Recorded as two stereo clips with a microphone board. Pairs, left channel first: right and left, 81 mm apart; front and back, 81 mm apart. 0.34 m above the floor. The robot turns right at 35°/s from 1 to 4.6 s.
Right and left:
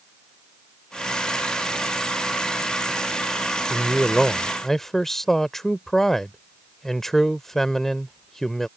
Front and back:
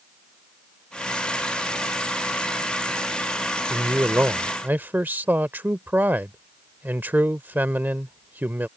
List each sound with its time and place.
3.7 s a man speaking: 160° left; by 8.7 s 170° right